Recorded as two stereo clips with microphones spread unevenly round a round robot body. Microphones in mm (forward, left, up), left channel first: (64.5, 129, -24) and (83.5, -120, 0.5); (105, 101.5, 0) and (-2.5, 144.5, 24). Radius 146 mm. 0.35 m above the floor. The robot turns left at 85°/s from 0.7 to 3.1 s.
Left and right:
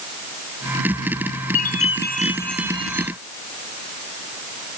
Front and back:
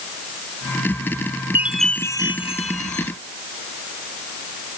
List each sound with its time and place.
1.6 s a chime: 90° left; by 3.1 s 45° right